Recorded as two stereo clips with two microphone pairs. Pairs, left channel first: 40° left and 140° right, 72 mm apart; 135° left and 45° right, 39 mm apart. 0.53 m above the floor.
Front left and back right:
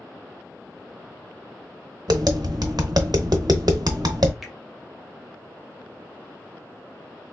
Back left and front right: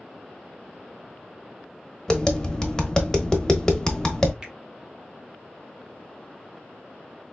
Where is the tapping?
150° right, 0.9 m.